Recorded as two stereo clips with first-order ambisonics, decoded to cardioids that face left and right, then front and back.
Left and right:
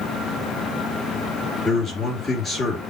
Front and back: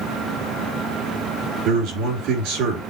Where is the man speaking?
170° left, 3 m.